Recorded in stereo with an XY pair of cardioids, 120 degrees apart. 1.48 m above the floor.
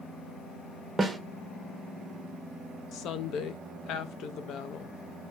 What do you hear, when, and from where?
1.0 s a snare drum: 15° right, 0.6 m
2.9 s a woman speaking: 65° left, 0.5 m